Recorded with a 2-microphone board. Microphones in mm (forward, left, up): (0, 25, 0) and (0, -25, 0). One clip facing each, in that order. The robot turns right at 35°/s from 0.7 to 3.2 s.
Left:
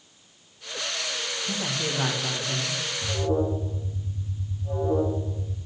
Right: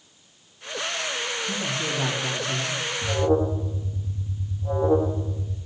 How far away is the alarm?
About 1.1 m.